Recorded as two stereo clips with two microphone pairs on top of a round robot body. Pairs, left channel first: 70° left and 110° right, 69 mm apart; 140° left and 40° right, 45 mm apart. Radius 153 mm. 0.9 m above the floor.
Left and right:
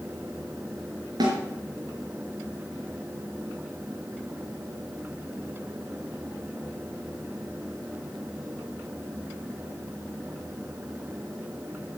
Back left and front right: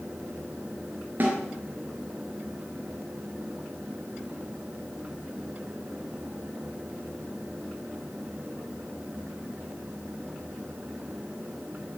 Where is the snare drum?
85° right, 4.5 m.